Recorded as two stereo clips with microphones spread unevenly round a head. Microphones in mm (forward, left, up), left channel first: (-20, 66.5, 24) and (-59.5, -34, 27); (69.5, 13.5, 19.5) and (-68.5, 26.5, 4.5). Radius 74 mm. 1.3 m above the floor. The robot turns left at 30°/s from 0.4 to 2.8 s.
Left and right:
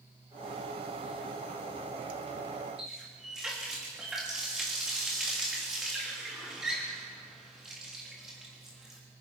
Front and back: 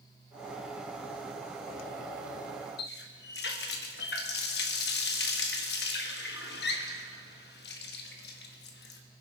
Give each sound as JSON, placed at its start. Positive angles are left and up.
{"t": 2.8, "sound": "a running tap", "azimuth_deg": -25, "distance_m": 1.5}